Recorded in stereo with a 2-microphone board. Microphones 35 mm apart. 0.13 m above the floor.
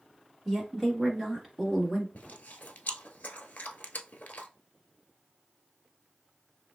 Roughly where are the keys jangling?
I don't hear keys jangling.